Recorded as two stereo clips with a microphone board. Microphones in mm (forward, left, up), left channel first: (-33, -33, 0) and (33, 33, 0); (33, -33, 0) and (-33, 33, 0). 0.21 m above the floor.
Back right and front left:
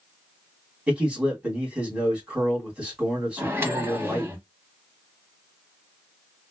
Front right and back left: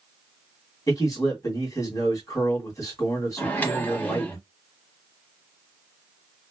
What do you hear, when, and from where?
0.9 s a man speaking: 25° right, 2 m
3.4 s a microwave: 10° left, 0.9 m